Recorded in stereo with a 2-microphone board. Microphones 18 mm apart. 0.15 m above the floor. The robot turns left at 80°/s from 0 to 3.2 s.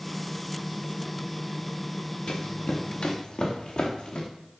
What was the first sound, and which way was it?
Running footsteps, 55° left (ahead or behind).